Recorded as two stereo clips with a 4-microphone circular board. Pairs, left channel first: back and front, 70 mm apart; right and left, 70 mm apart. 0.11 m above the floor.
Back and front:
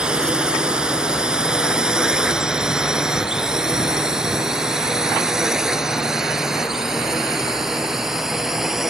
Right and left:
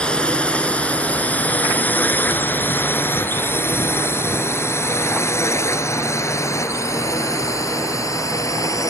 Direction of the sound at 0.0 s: 50° right.